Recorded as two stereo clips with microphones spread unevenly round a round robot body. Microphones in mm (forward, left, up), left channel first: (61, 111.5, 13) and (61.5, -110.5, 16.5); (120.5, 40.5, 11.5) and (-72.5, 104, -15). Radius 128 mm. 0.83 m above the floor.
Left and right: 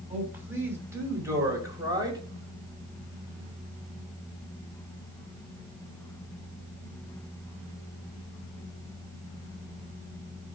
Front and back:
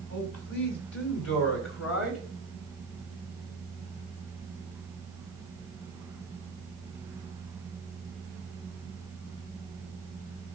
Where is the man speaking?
10° right, 6.5 m; by 2.2 s 20° right, 5 m.